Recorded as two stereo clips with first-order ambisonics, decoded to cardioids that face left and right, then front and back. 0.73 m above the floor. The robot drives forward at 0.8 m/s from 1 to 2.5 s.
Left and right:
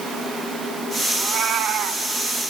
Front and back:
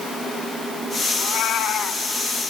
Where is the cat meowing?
40° right, 1.6 m; by 2.0 s 65° right, 1.1 m.